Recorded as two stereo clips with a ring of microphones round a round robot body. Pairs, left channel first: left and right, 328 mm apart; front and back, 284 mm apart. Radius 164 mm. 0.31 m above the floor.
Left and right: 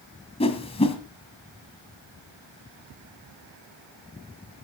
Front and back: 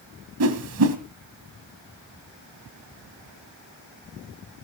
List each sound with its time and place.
0.4 s a whoosh: 160° left, 1.9 m